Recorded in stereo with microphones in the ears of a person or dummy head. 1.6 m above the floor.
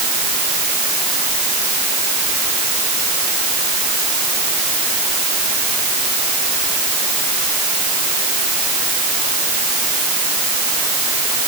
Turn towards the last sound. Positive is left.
No sound to turn to.